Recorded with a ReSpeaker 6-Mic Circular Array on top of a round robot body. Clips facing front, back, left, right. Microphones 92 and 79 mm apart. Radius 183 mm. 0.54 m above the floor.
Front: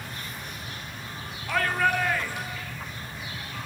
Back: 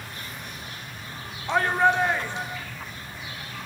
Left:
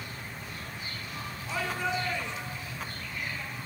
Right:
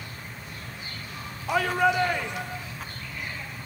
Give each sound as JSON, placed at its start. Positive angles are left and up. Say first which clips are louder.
{"t": 1.5, "sound": "a shout", "louder": "back 4 dB, right 9 dB", "azimuth_deg": -115, "distance_m": 2.5}